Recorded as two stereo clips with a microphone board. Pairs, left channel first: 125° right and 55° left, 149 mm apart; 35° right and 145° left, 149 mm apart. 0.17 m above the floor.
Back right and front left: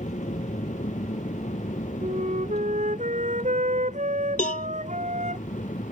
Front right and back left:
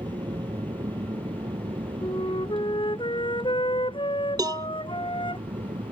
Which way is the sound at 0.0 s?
160° right.